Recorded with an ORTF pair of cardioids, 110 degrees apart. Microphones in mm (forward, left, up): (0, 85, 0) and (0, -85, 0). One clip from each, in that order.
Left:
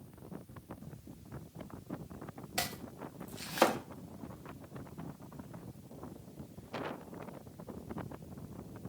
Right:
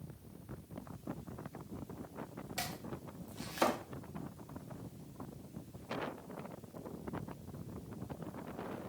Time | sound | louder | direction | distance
2.6 | chopping | left 4 dB | 35° left | 1.2 m